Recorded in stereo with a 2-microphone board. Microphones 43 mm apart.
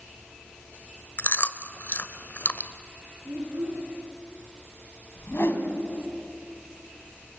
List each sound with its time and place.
1.2 s chewing: 50° left (ahead or behind), 0.9 m
3.2 s a child speaking: 65° right (ahead or behind), 6.5 m
5.2 s a whoosh: 65° left (ahead or behind), 3 m